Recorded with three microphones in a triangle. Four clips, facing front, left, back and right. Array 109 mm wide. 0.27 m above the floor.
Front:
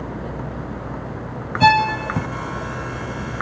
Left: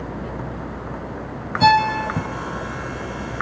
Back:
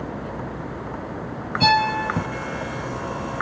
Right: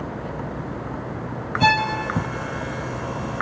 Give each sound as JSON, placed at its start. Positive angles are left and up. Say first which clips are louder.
{"t": 1.6, "sound": "a violin", "louder": "left 5 dB, front 4 dB", "azimuth_deg": 10, "distance_m": 0.7}